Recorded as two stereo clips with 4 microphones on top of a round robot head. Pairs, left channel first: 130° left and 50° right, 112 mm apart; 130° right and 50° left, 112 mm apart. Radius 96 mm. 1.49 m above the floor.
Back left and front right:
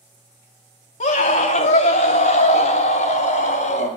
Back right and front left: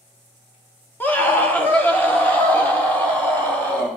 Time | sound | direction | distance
1.0 | a scream | 155° left | 1.4 m